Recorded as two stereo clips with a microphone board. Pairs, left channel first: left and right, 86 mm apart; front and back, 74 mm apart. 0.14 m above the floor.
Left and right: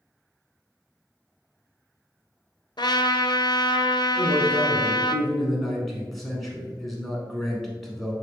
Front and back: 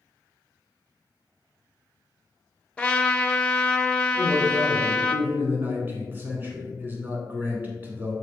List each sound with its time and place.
2.8 s a trumpet: 75° left, 0.6 m
4.2 s a man speaking: 175° left, 1.4 m